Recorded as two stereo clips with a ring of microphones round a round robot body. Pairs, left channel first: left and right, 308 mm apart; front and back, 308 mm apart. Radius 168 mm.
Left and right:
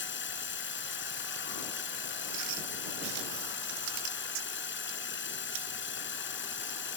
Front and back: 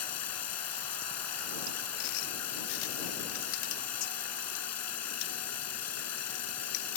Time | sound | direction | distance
0.0 | running water | 35° left | ?